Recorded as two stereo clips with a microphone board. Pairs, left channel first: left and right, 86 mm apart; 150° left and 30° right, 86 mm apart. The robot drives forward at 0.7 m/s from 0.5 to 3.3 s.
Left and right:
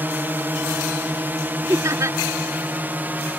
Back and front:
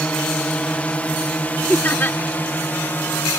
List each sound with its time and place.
0.0 s a drone: 145° right; by 3.4 s 150° right
1.7 s laughter: 140° right; by 2.2 s 145° right